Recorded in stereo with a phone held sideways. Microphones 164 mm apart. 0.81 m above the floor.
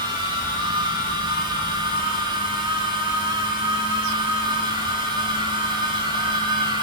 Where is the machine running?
30° right (ahead or behind), 2 m.